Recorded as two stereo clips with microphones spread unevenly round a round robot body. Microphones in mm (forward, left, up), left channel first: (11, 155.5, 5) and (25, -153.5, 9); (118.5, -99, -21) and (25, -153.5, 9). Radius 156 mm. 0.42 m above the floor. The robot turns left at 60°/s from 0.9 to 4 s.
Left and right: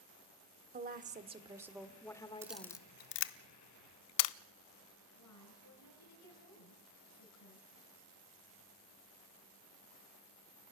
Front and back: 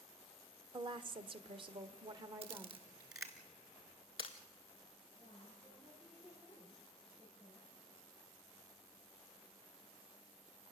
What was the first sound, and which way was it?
A woman speaking, 120° right.